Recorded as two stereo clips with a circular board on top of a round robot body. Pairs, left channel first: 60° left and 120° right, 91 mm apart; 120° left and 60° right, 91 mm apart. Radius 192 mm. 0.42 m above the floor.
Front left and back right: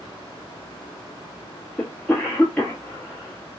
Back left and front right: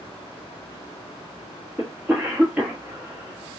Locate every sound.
1.8 s a cough: straight ahead, 1.3 m